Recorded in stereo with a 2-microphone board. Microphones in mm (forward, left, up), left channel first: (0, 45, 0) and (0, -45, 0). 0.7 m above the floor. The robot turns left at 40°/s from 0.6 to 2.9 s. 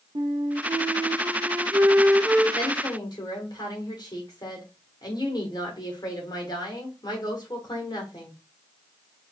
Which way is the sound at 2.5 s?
60° left (ahead or behind).